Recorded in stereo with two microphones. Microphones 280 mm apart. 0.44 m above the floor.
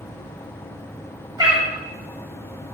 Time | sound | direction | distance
1.4 | a cat meowing | 15° right (ahead or behind) | 1.3 m